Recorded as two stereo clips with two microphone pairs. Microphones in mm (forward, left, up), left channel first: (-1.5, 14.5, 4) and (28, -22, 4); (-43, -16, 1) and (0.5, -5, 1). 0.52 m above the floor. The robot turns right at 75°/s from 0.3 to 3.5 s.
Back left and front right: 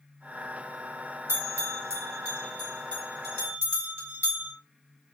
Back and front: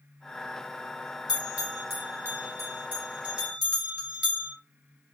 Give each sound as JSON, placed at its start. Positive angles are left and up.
{"t": 1.3, "sound": "a bell", "azimuth_deg": -65, "distance_m": 2.5}